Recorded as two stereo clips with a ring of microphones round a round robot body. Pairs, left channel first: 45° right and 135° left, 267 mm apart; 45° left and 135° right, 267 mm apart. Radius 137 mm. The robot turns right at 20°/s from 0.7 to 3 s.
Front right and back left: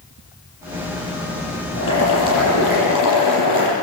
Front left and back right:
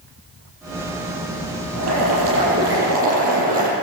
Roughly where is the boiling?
Right.